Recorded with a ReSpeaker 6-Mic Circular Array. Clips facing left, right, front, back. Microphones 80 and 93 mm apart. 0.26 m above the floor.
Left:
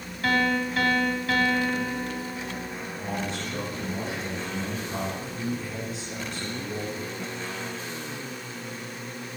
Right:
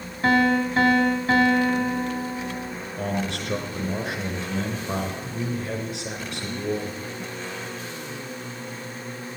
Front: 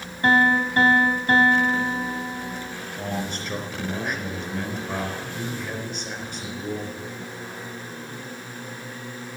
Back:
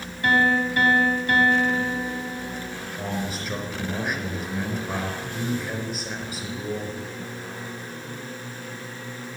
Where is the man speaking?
95° right, 3.5 m.